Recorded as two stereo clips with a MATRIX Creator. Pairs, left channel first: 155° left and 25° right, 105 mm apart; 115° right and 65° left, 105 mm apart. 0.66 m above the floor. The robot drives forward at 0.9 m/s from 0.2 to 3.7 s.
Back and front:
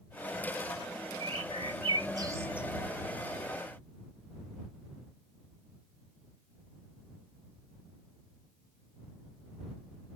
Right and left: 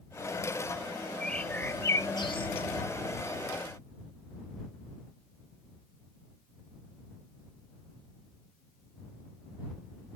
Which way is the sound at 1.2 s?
30° right.